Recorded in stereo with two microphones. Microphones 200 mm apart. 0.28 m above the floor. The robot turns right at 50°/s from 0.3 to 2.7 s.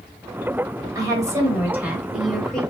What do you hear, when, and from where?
0.9 s a woman speaking: 15° right (ahead or behind), 1.2 m; by 2.6 s 5° left (ahead or behind), 1.2 m